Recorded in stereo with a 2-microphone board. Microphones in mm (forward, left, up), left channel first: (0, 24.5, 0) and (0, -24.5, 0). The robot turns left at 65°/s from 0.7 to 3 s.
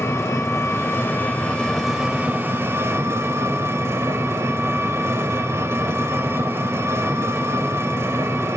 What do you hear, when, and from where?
0.0 s an engine running: 75° left, 3.5 m; by 8.6 s 75° right, 3.5 m